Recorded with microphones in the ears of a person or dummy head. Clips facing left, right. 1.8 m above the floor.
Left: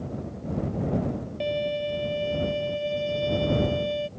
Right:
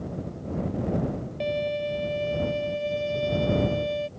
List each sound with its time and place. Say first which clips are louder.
1.4 s a violin: even; centre (ahead or behind)